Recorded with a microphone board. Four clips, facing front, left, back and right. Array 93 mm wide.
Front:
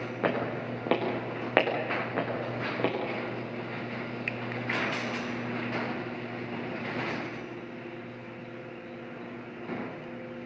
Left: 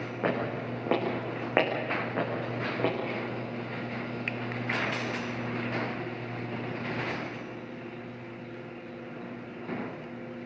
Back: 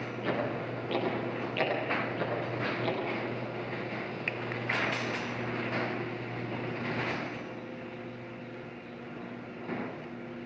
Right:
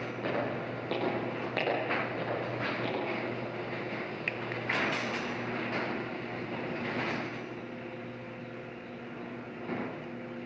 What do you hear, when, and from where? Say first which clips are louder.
0.2 s footsteps: left 3 dB, front 3 dB; 25° left, 6 m; by 2.9 s 35° left, 7.5 m